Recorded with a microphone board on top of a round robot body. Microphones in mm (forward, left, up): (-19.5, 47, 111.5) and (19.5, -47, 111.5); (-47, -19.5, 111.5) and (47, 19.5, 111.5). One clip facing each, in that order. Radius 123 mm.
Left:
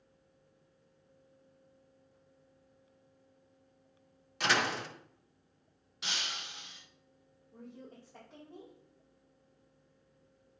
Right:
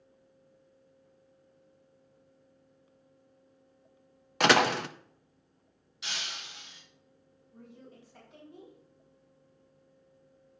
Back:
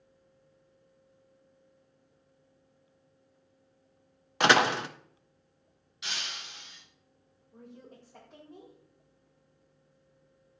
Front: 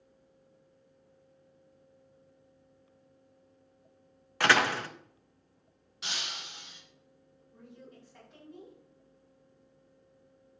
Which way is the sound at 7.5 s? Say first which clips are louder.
Left 2 dB, back 2 dB; 155° left.